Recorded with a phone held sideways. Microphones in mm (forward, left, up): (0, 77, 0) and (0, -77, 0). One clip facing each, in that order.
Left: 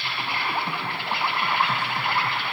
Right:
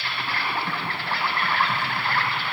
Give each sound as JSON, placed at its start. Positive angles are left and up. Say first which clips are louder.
{"t": 0.0, "sound": "an insect", "louder": "even", "side_deg": 20, "distance_m": 1.1}